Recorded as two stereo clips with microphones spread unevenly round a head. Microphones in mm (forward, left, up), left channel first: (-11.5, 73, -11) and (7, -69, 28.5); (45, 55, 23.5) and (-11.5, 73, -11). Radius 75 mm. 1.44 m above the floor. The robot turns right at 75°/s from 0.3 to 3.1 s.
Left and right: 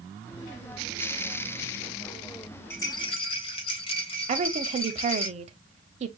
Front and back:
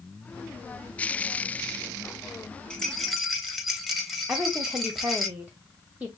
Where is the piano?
I don't hear a piano.